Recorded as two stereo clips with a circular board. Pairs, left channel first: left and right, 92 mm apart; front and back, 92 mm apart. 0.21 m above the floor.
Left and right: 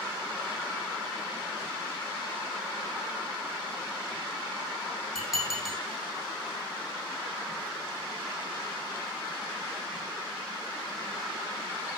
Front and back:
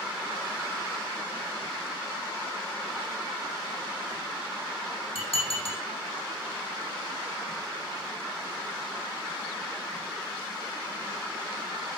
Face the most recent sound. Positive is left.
turn(degrees=-5)